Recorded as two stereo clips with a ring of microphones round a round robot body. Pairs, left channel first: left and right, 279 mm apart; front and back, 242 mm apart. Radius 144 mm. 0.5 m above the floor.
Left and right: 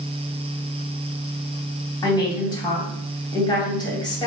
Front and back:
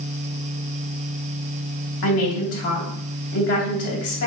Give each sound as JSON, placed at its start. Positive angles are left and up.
{"t": 2.0, "sound": "a woman speaking", "azimuth_deg": 15, "distance_m": 3.0}